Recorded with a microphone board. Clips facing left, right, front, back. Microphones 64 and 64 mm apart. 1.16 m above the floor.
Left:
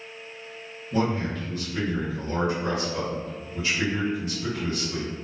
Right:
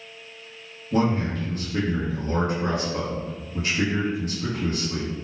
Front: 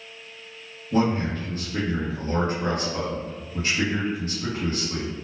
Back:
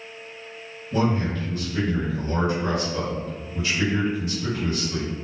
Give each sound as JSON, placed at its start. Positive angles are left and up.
{"t": 0.9, "sound": "a man speaking", "azimuth_deg": -45, "distance_m": 1.3}